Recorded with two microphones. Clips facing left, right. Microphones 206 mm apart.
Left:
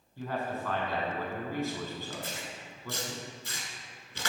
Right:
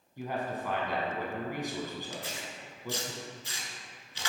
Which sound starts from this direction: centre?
A man speaking, at 0.2 s.